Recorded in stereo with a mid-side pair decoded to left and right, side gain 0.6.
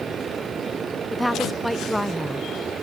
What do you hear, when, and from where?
0.0 s a machine running: 35° right
1.1 s a woman speaking: 5° left